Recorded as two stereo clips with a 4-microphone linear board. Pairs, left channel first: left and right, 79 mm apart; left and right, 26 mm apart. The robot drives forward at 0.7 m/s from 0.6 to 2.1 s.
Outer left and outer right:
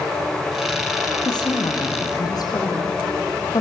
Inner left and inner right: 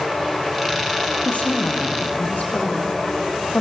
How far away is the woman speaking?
About 3.5 m.